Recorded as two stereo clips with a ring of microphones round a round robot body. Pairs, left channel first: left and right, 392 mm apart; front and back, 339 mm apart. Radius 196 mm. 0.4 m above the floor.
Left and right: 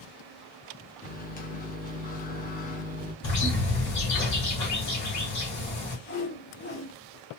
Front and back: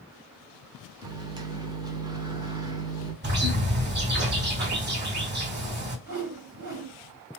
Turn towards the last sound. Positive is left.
turn(degrees=150)